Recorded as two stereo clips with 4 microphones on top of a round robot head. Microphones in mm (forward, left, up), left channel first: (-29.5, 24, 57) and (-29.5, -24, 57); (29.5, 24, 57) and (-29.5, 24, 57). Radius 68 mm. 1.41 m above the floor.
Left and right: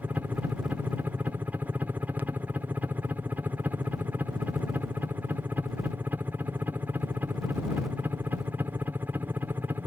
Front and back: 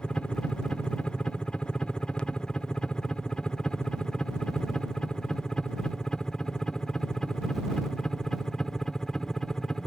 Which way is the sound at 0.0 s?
70° right.